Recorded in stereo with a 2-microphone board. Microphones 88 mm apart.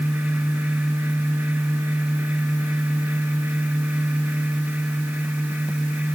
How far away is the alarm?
No alarm in this recording.